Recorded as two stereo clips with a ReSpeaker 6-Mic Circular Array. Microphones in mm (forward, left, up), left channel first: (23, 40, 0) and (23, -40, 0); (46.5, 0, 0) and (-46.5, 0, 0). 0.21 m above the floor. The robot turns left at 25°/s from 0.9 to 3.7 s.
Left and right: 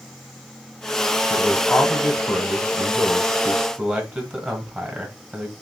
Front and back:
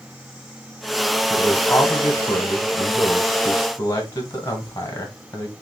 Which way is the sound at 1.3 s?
20° left.